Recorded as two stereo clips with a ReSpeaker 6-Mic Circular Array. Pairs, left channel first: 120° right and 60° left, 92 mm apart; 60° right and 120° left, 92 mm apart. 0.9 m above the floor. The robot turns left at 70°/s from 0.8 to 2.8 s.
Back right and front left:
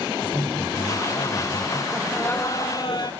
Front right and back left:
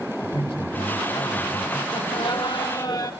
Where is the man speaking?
75° right, 5 m; by 1.8 s 150° right, 5 m.